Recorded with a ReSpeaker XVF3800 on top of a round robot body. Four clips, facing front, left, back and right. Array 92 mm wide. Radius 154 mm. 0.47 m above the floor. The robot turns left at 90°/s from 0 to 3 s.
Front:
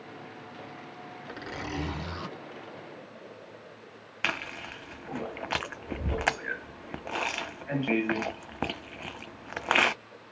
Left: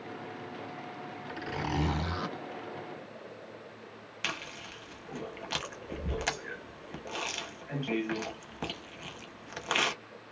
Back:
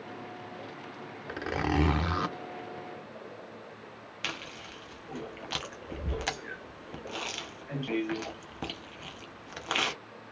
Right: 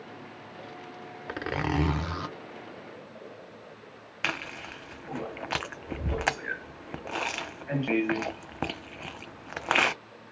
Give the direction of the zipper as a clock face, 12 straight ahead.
3 o'clock.